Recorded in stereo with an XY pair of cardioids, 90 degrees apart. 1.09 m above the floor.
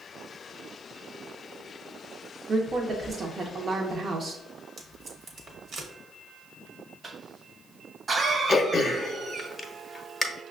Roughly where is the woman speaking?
Ahead right.